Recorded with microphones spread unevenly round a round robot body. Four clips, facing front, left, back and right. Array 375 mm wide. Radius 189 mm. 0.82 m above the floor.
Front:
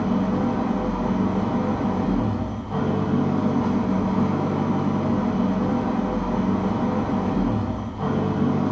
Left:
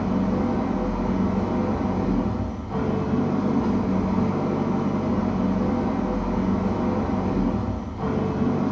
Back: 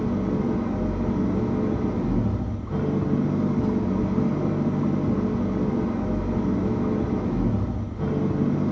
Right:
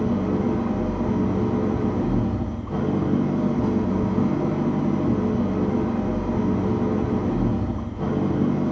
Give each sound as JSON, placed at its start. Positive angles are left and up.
{"t": 0.0, "sound": "an engine running", "azimuth_deg": -135, "distance_m": 2.5}